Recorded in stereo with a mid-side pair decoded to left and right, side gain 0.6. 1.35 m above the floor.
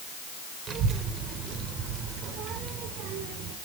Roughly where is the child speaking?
Ahead right.